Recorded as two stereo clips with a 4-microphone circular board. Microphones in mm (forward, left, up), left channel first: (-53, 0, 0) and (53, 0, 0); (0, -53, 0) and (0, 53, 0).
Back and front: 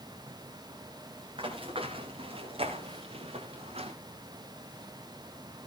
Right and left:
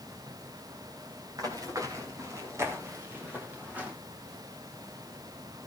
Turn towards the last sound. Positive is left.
turn(degrees=10)